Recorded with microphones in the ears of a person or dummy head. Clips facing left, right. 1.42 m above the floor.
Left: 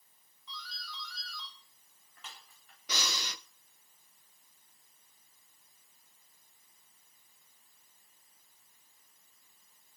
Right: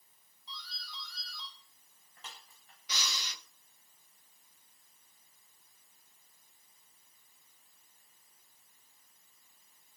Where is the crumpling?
No crumpling in this recording.